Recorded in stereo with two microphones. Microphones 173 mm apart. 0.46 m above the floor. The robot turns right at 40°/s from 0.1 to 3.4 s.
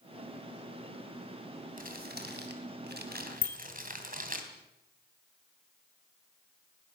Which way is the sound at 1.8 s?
55° right (ahead or behind).